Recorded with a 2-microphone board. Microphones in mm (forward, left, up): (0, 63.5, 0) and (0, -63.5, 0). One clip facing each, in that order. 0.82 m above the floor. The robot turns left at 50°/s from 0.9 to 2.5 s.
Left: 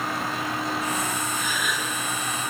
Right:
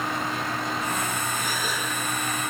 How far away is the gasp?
About 7.5 m.